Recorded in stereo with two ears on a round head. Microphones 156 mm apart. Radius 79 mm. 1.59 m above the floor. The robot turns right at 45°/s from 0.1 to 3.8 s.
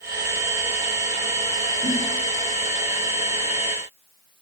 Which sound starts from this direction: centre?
A giggle, at 1.8 s.